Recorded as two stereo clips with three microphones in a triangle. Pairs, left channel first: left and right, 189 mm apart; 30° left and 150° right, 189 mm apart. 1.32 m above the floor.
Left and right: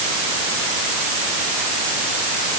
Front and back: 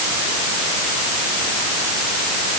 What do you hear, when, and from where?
Only background noise.